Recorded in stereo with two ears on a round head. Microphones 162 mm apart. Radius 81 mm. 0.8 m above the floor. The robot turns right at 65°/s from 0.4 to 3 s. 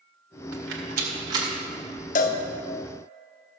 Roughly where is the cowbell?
Left.